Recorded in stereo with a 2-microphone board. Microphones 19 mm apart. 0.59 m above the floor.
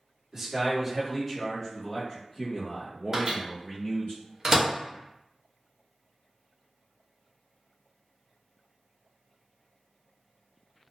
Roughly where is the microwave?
Right.